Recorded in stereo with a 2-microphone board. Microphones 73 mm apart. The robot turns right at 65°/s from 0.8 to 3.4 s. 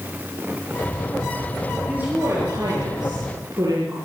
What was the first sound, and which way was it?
A woman speaking, 165° right.